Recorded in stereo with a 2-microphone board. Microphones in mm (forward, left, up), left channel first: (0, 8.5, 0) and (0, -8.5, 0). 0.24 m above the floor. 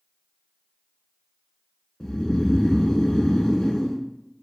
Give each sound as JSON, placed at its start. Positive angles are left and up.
{"t": 2.0, "sound": "snoring", "side_deg": 50, "distance_m": 1.0}